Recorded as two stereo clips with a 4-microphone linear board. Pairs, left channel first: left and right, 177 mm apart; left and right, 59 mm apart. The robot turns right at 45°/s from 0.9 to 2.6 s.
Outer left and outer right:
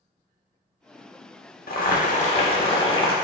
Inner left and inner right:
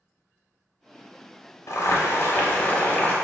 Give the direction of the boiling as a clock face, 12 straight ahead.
9 o'clock.